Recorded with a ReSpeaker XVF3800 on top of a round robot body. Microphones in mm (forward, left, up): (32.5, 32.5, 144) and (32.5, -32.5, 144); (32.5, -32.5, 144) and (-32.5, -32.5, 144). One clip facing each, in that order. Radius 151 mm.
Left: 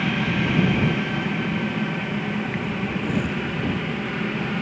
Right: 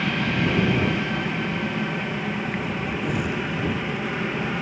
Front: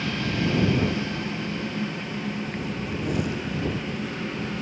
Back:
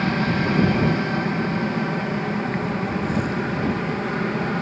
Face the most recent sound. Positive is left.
turn(degrees=-175)